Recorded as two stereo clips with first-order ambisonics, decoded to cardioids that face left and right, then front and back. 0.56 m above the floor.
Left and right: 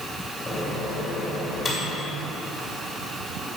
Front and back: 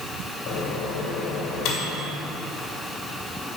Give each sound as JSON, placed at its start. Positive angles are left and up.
{"t": 0.5, "sound": "a microwave", "azimuth_deg": 20, "distance_m": 2.0}